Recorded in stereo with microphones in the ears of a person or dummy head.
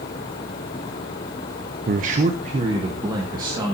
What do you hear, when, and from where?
1.9 s a man speaking: 45° right (ahead or behind), 0.7 m; by 3.8 s 20° right (ahead or behind), 2 m